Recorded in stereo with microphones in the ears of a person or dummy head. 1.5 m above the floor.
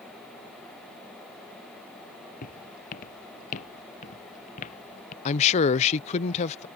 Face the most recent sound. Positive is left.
turn(degrees=40)  # may be behind; listen again after turning